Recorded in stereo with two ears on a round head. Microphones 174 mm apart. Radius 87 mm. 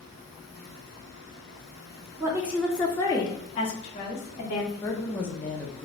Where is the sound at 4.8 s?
10° left (ahead or behind), 0.5 m.